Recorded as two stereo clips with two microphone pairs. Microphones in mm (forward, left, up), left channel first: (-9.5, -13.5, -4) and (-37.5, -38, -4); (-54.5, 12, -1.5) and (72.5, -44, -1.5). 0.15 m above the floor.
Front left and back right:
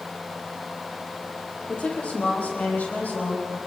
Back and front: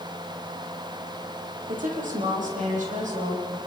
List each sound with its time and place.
1.7 s a woman speaking: 15° right, 5 m; by 3.6 s straight ahead, 7.5 m